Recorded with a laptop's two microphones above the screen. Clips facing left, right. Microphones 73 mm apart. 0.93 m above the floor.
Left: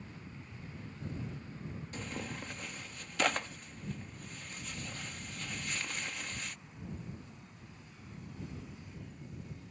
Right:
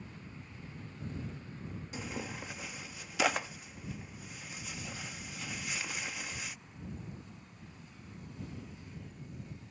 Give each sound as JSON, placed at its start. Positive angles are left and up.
{"t": 1.9, "sound": "tearing paper", "side_deg": -10}